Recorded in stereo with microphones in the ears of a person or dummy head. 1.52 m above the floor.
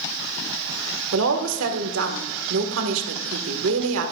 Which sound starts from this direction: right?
A woman speaking, at 1.1 s.